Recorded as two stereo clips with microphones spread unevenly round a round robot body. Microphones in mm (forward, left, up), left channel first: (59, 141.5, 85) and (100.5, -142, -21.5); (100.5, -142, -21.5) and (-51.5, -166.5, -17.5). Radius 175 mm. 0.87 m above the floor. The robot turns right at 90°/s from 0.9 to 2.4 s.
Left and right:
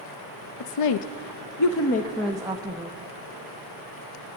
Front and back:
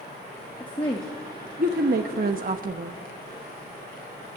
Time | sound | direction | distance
0.6 | a woman speaking | 80° left | 0.8 m